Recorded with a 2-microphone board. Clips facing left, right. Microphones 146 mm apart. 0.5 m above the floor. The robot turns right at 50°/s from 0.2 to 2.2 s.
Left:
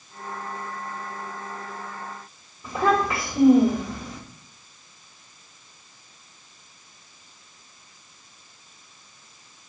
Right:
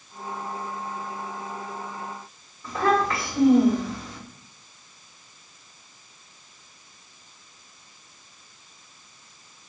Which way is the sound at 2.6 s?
20° left (ahead or behind).